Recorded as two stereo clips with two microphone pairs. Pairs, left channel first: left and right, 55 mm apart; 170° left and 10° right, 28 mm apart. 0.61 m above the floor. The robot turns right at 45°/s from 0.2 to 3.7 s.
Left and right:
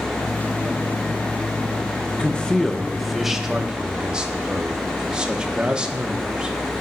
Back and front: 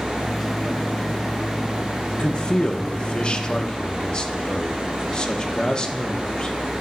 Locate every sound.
2.1 s a man speaking: 135° left, 0.7 m; by 6.5 s 150° right, 0.7 m